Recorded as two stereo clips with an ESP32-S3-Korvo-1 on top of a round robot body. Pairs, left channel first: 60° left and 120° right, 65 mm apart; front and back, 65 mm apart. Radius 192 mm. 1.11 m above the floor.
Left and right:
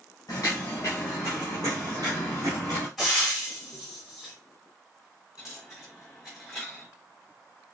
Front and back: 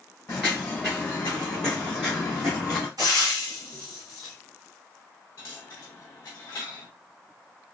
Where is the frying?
155° left, 0.8 m.